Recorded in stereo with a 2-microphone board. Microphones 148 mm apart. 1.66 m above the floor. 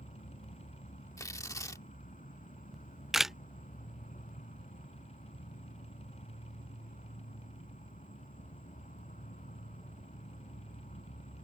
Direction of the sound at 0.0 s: 70° left (ahead or behind).